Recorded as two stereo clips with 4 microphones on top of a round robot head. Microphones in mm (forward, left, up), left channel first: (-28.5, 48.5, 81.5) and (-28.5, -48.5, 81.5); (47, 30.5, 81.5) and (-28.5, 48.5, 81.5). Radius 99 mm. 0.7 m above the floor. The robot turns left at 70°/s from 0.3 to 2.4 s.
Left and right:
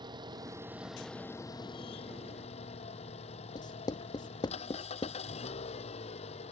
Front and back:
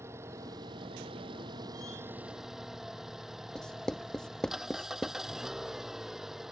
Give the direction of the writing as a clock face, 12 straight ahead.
10 o'clock.